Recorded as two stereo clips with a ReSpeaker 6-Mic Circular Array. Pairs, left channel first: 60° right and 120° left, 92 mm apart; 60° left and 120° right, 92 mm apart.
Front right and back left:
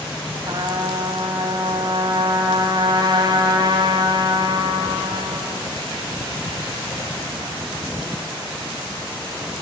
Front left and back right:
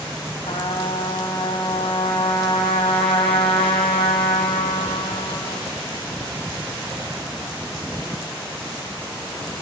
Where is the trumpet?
75° left, 4.5 m.